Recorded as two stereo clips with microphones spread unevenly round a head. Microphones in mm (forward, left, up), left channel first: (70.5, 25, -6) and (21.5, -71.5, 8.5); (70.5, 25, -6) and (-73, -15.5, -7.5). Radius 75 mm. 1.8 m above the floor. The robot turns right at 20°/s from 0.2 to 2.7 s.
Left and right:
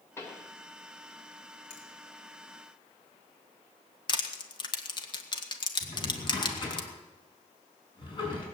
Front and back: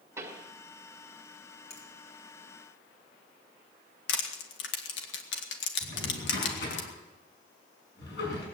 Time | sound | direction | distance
0.2 | a pop | 135° left | 1.8 m
1.7 | a finger snap | 65° left | 4 m
4.1 | crushing | 15° left | 2 m
5.8 | a drawer | 15° left | 7 m